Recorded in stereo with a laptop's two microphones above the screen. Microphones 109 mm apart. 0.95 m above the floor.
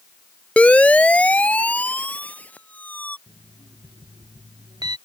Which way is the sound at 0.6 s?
10° left (ahead or behind).